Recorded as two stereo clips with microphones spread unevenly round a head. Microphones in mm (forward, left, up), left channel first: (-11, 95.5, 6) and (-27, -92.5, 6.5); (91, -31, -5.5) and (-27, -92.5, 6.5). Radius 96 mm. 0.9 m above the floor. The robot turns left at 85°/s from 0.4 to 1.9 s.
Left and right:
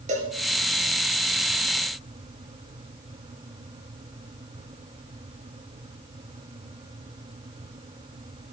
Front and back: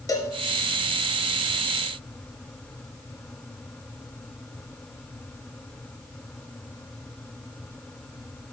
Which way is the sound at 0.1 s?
40° right.